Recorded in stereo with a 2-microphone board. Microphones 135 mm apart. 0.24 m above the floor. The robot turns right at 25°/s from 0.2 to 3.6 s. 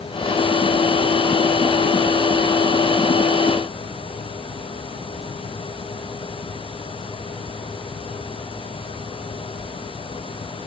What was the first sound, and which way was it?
Only background noise.